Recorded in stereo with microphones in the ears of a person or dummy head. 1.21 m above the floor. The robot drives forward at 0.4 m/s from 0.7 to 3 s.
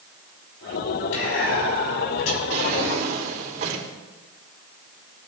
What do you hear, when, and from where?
1.1 s whispering: 75° left (ahead or behind), 5 m; by 2.4 s 80° left, 5 m
2.5 s a drawer: 50° right (ahead or behind), 3.5 m; by 3.9 s 55° right (ahead or behind), 3 m